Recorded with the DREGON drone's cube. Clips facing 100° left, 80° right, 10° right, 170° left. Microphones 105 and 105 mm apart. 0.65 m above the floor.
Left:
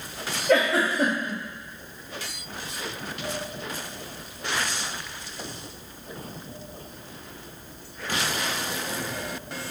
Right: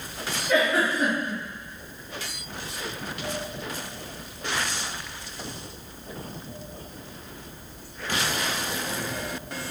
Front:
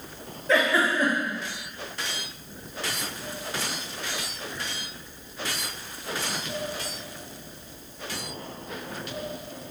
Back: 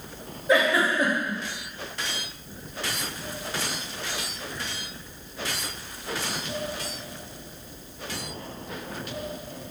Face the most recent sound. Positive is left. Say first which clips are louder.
# left 2 dB, back 1 dB
turn(degrees=95)